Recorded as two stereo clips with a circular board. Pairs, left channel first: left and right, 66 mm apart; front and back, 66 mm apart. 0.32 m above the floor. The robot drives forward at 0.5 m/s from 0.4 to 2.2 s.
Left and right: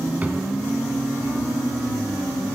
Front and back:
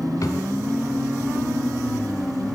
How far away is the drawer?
About 0.7 m.